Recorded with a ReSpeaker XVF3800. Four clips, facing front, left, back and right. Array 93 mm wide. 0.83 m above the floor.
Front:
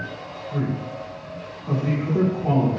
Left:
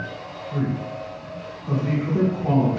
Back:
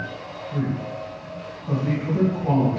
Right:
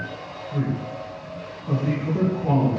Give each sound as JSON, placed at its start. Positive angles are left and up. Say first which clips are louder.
{"t": 0.5, "sound": "a man speaking", "louder": "left 1 dB, even", "azimuth_deg": 25, "distance_m": 1.9}